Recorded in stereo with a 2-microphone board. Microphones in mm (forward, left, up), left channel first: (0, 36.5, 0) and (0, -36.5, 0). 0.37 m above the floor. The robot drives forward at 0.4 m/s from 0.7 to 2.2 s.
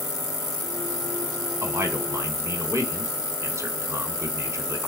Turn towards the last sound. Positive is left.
turn(degrees=-40)  # may be behind; listen again after turning